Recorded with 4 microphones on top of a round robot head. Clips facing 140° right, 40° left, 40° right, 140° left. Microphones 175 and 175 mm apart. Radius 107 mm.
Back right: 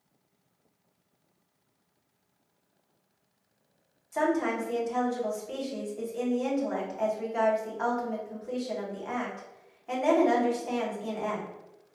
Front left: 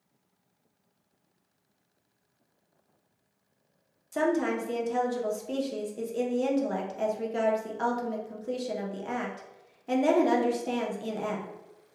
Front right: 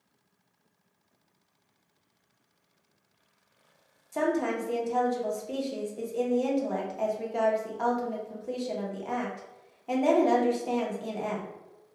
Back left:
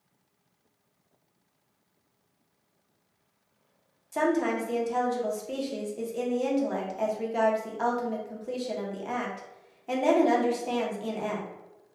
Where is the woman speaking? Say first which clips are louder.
Front left 1 dB, back left 2 dB; 50° left, 0.8 m.